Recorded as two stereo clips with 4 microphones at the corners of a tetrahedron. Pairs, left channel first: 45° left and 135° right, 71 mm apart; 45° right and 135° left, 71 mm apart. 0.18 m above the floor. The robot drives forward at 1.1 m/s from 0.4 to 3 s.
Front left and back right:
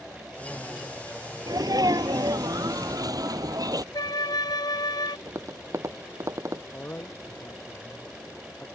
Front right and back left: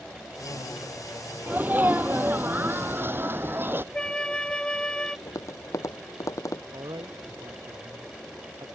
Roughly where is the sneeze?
Behind.